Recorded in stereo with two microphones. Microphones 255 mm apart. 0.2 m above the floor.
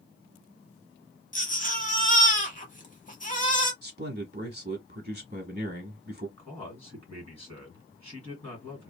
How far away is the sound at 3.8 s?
About 1.1 m.